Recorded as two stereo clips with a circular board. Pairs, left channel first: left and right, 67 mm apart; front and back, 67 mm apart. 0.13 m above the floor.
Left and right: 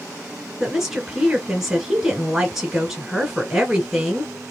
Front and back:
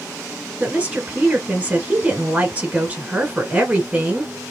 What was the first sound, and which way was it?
A woman speaking, 165° right.